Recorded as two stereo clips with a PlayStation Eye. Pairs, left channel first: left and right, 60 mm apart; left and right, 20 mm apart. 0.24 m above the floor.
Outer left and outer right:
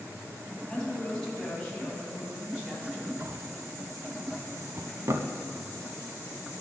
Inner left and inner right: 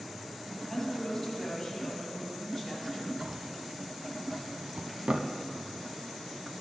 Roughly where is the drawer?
Right.